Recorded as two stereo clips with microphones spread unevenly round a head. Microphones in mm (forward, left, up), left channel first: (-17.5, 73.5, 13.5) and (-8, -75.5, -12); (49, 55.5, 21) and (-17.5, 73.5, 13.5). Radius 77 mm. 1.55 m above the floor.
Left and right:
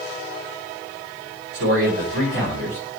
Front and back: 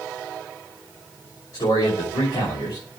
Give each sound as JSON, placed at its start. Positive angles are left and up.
{"t": 1.5, "sound": "a man speaking", "azimuth_deg": -65, "distance_m": 5.0}